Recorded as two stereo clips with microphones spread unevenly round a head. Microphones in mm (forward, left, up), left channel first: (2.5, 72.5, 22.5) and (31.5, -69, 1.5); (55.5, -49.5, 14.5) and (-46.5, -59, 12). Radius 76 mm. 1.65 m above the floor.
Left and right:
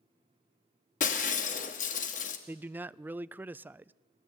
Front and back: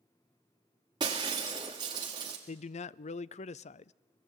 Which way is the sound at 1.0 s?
125° left.